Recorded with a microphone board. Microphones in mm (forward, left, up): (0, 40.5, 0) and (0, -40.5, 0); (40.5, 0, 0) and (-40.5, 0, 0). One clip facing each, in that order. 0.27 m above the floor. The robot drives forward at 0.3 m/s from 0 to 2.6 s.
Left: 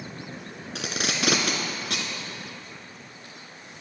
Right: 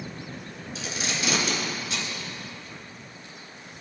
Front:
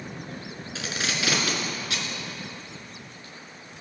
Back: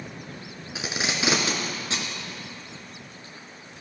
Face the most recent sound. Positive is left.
turn(degrees=125)